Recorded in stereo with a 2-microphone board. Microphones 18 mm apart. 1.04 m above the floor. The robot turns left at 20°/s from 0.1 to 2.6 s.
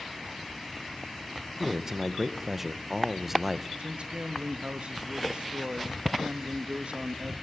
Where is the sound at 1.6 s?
25° right (ahead or behind), 0.9 m; by 3.7 s 15° right (ahead or behind), 0.9 m.